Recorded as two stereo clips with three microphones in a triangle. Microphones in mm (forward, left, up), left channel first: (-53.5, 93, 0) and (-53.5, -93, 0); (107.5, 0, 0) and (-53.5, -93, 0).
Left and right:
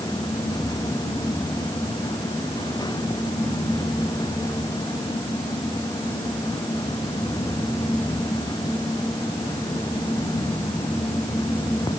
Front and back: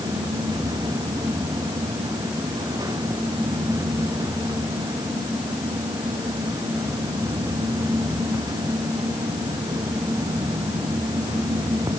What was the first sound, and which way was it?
Only background noise.